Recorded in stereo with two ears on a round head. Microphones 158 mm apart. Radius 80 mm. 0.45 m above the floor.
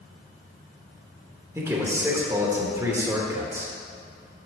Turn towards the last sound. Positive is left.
turn(degrees=-15)  # may be behind; listen again after turning